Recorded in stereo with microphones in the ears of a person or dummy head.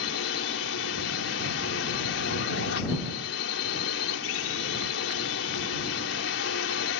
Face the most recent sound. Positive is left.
turn(degrees=85)